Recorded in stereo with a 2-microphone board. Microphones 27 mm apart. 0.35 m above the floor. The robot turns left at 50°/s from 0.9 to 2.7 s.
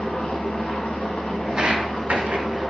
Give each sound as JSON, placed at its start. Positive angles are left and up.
{"t": 0.0, "sound": "an engine running", "azimuth_deg": 100, "distance_m": 1.0}
{"t": 1.4, "sound": "footsteps", "side_deg": -20, "distance_m": 0.6}